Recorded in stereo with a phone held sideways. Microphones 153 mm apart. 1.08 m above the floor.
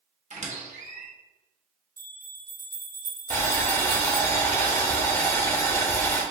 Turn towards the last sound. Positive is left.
turn(degrees=20)  # may be behind; listen again after turning